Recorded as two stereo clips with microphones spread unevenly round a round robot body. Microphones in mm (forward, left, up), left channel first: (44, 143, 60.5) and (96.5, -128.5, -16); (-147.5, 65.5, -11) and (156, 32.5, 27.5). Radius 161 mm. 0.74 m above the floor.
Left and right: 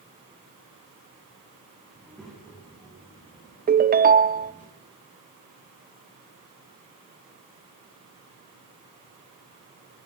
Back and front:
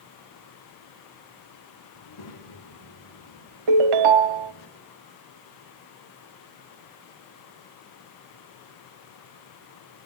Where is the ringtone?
20° right, 0.8 m.